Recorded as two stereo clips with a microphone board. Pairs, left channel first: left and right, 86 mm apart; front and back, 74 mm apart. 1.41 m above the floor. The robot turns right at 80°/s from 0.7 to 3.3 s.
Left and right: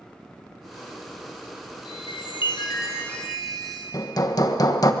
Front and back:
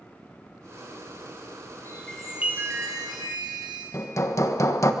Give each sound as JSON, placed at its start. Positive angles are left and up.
{"t": 1.9, "sound": "a chime", "azimuth_deg": 60, "distance_m": 4.0}
{"t": 3.9, "sound": "hammering", "azimuth_deg": 45, "distance_m": 1.2}